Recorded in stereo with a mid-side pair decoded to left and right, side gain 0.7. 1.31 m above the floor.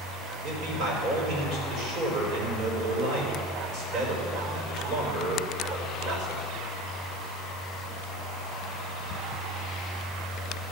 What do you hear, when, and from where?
0.4 s a man speaking: 45° right, 5 m